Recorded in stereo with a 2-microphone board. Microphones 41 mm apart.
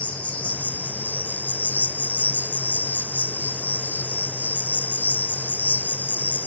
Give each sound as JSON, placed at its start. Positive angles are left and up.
{"t": 0.0, "sound": "an insect", "side_deg": 35, "distance_m": 0.8}